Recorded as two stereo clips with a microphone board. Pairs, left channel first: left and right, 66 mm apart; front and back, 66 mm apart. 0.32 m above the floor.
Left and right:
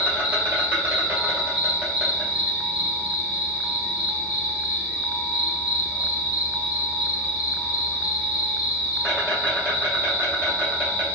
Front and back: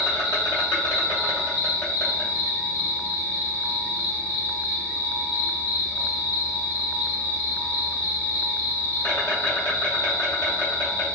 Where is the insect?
35° right, 1.6 m.